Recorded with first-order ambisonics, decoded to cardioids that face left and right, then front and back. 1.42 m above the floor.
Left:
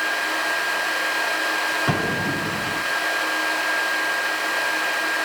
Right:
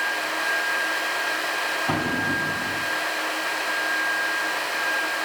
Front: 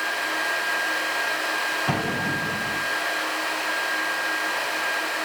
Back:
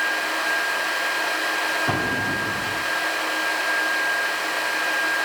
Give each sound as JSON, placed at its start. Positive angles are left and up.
{"t": 1.9, "sound": "an explosion", "azimuth_deg": 95, "distance_m": 2.5}